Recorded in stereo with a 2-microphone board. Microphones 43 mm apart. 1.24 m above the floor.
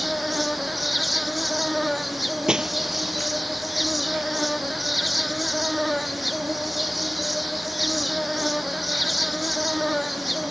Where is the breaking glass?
20° right (ahead or behind).